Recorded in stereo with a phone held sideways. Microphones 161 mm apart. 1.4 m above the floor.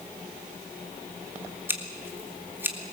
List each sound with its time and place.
1.7 s scissors: 15° right (ahead or behind), 2 m